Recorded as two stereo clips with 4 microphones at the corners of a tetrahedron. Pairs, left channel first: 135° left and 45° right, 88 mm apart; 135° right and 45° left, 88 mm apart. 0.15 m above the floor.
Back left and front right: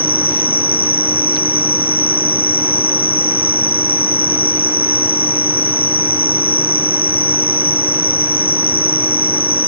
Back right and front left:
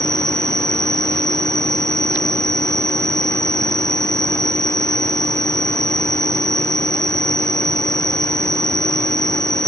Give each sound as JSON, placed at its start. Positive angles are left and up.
{"t": 0.0, "sound": "an insect", "azimuth_deg": 140}